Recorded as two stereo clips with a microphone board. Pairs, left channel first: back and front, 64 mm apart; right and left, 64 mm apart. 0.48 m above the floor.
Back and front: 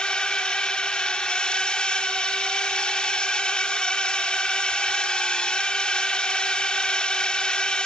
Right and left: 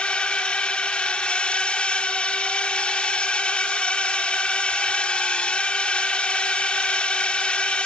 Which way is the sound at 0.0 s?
130° right.